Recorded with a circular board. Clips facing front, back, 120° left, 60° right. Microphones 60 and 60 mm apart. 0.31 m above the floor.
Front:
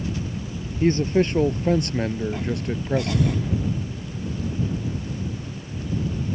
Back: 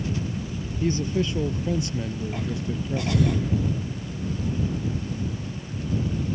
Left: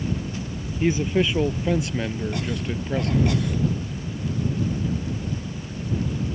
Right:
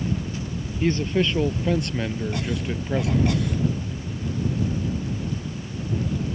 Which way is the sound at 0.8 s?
40° left.